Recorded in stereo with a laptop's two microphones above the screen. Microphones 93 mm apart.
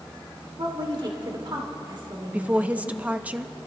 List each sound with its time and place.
0.6 s a woman speaking: 55° right (ahead or behind), 2.5 m
2.3 s a woman speaking: 15° right (ahead or behind), 0.9 m